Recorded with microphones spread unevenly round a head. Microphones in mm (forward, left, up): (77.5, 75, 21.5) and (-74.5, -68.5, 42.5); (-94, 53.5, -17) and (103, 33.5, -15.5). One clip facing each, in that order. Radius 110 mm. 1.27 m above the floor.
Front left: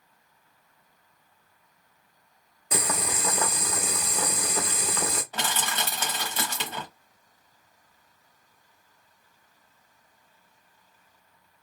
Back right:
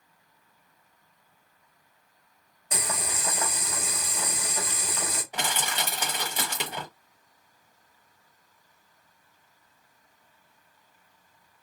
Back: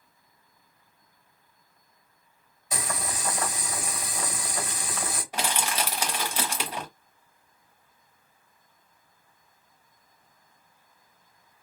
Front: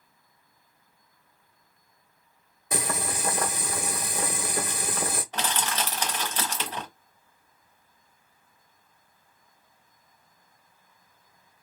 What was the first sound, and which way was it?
Boiling, 25° left.